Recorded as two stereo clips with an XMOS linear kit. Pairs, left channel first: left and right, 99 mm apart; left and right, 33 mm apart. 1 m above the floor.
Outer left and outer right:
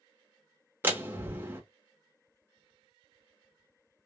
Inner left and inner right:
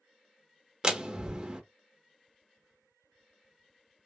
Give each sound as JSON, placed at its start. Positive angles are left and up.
{"t": 0.8, "sound": "a door slam", "side_deg": -20, "distance_m": 1.0}